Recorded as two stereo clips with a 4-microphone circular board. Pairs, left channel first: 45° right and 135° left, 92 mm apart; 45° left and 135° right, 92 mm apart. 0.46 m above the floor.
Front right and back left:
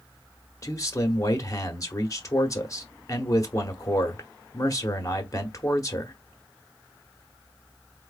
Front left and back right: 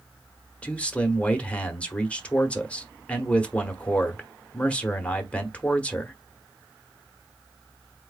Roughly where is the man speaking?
Ahead right.